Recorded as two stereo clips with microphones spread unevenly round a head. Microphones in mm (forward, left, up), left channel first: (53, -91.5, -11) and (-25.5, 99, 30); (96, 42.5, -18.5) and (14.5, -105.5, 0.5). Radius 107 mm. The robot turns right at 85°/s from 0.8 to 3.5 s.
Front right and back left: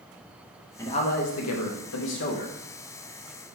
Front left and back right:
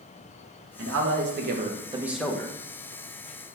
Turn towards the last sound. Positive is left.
turn(degrees=85)